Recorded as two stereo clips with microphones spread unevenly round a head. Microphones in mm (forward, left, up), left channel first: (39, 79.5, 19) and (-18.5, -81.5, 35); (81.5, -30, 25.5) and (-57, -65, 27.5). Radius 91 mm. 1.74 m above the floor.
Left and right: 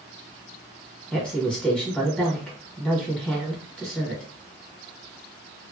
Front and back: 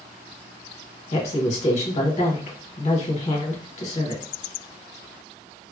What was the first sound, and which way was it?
A woman speaking, 15° right.